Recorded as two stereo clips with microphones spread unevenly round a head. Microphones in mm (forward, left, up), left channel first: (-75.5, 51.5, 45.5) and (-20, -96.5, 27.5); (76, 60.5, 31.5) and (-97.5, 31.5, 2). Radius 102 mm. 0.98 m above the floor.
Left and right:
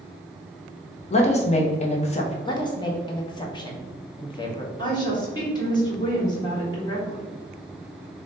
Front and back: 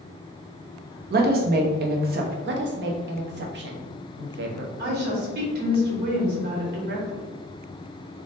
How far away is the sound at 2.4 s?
About 0.9 m.